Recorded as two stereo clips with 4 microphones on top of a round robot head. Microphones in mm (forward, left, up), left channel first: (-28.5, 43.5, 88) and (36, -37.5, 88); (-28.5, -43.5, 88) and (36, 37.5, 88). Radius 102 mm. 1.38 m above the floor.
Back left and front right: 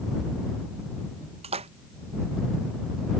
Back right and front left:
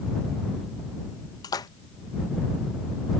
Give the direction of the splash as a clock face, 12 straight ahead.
3 o'clock.